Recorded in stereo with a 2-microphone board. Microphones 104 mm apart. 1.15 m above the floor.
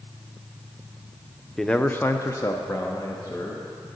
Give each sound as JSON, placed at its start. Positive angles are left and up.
{"t": 1.6, "sound": "a man speaking", "side_deg": 5, "distance_m": 0.5}